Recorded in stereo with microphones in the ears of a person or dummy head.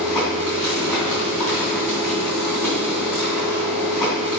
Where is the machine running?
Centre (ahead or behind), 3 m.